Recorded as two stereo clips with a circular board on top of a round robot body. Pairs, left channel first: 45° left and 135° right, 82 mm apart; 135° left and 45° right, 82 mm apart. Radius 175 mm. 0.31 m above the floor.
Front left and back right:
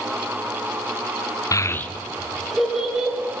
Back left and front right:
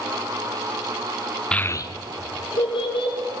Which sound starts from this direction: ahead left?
A child speaking, at 1.5 s.